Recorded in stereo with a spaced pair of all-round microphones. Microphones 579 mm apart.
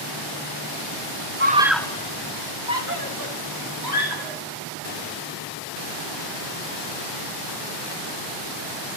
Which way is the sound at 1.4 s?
20° right (ahead or behind).